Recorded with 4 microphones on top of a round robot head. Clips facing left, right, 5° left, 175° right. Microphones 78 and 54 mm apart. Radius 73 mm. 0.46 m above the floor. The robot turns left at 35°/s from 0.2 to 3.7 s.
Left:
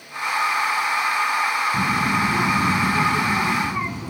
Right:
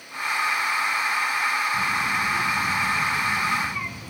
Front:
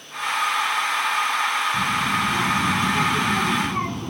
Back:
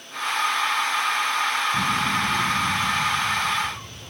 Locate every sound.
1.7 s a child speaking: 95° left; by 4.1 s 30° left